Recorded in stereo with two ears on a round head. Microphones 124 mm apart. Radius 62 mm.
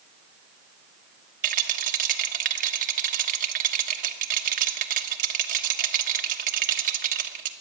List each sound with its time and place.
1.4 s a rattle: 60° right (ahead or behind), 1.2 m